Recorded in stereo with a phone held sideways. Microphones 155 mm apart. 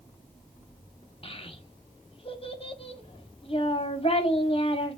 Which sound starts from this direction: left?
A child speaking, at 1.2 s.